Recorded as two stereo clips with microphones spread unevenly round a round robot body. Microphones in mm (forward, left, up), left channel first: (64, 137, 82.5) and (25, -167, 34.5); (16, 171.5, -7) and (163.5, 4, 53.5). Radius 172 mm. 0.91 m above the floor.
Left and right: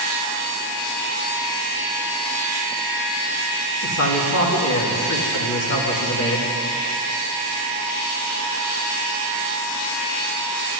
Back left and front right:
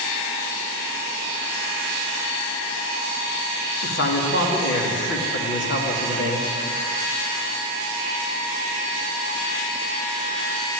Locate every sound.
3.8 s a man speaking: 130° left, 2.0 m